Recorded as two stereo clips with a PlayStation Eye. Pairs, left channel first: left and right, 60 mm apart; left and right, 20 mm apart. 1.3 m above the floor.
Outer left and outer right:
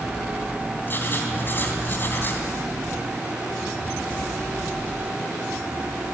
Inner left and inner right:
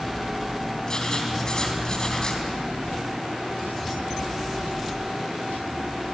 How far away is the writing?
About 3 m.